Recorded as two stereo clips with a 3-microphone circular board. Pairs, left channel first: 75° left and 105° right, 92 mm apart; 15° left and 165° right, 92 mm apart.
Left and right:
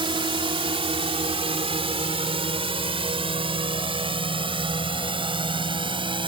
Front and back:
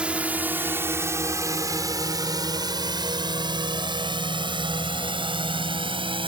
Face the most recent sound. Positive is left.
turn(degrees=-135)